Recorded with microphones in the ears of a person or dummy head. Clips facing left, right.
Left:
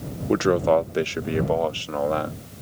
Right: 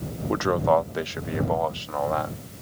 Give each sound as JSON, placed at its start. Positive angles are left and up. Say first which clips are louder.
{"t": 0.3, "sound": "a man speaking", "louder": "left 3 dB", "side_deg": 20}